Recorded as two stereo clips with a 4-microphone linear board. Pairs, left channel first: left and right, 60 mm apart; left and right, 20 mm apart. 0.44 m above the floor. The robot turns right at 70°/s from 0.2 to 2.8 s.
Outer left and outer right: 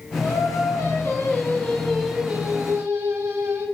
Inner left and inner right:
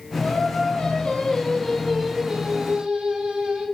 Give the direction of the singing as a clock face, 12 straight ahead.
10 o'clock.